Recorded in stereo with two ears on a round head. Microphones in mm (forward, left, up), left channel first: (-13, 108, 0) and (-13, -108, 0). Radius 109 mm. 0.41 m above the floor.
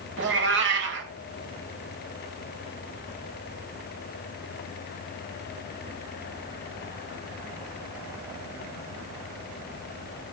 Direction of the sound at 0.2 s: 50° right (ahead or behind).